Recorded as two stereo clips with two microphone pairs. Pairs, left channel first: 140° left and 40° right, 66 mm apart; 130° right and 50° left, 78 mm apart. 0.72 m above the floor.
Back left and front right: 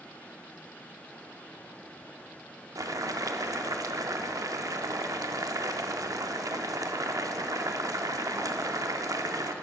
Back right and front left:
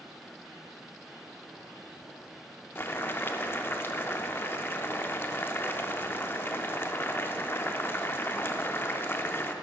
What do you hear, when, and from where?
2.8 s boiling: 70° right, 0.5 m